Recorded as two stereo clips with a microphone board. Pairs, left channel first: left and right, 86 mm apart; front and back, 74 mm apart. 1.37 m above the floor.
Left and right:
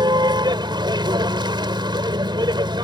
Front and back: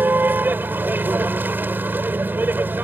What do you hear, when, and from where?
0.0 s a vehicle: 115° right